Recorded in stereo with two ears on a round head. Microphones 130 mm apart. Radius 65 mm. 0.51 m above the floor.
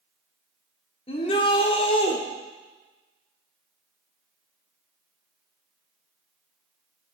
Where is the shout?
40° left (ahead or behind), 1.3 m.